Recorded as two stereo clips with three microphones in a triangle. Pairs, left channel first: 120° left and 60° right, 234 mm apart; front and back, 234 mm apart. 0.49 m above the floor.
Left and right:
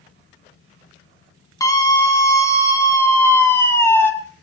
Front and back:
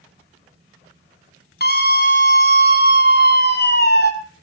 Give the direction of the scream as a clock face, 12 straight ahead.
11 o'clock.